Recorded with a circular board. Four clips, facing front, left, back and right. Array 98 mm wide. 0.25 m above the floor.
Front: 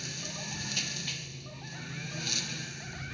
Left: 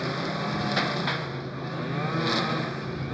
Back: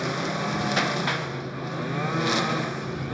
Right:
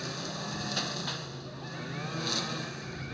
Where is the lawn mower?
145° left.